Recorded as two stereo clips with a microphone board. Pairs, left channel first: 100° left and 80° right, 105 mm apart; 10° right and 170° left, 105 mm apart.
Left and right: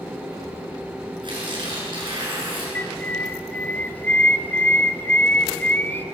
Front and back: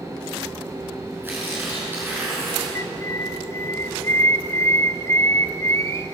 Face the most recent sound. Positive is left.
turn(degrees=35)